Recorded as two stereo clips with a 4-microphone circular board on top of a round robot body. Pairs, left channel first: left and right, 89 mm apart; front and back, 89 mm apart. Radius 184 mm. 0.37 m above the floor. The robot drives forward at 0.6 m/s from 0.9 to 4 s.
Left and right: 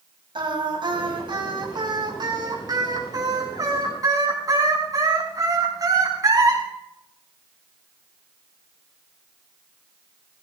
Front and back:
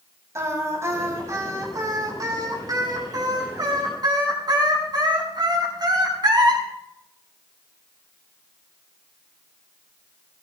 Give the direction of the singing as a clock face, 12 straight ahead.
4 o'clock.